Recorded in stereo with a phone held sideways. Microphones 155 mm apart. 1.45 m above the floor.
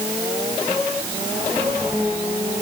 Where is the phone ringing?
No phone ringing in this recording.